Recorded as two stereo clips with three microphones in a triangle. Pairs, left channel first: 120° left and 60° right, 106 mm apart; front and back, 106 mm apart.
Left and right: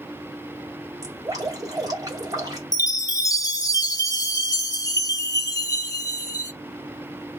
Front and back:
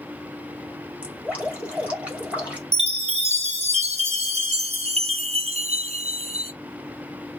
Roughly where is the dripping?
Right.